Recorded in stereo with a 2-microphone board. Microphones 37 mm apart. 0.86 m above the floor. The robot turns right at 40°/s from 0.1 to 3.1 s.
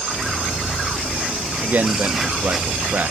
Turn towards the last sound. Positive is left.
turn(degrees=-65)